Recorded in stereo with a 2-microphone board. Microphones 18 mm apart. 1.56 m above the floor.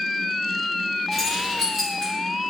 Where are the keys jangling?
10° left (ahead or behind), 1.9 m.